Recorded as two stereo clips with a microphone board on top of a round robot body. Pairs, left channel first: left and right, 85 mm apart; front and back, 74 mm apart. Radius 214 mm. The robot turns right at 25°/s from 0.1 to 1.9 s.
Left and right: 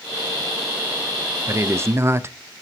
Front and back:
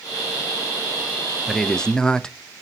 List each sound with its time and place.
1.5 s a man speaking: 85° right, 0.9 m; by 2.4 s 70° right, 0.9 m